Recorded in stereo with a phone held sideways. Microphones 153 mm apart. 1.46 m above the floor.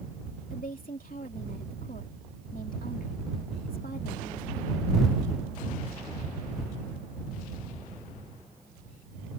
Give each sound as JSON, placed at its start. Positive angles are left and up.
{"t": 0.5, "sound": "a woman speaking", "side_deg": 65}